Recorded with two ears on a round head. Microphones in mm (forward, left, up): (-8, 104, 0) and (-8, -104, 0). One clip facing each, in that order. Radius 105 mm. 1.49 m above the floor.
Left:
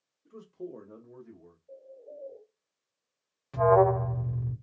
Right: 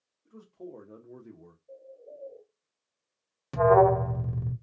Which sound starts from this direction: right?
An alarm, at 3.5 s.